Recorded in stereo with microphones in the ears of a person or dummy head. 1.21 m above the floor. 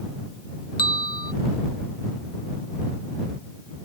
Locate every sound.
0.8 s a bell: 50° left (ahead or behind)